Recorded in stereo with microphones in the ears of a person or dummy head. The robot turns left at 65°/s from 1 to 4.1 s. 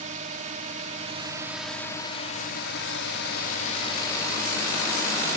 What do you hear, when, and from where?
0.0 s a drone: 140° right; by 5.4 s 20° left